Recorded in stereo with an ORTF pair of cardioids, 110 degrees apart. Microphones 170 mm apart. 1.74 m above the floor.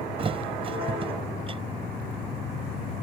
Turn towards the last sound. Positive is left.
turn(degrees=-35)